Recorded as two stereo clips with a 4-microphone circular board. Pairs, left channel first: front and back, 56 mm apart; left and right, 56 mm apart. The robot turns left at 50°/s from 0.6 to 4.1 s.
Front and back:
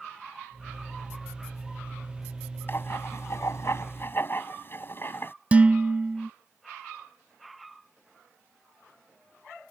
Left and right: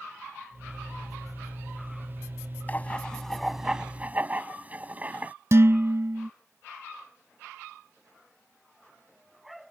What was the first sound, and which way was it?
Writing, 35° left.